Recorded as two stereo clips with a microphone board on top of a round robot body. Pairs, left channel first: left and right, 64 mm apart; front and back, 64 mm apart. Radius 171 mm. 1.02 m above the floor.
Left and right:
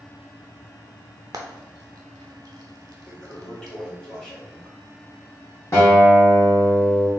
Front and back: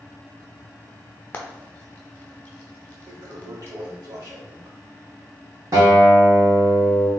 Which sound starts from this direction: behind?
A toilet flushing, at 3.1 s.